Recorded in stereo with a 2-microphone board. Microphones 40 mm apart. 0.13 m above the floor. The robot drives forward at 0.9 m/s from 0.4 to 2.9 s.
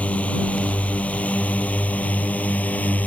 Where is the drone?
35° left (ahead or behind); by 3.1 s 40° left (ahead or behind).